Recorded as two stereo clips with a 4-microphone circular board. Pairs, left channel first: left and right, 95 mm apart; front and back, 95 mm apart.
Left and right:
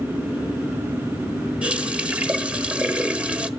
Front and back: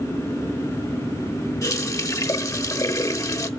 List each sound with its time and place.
1.6 s a running tap: 20° right, 1.0 m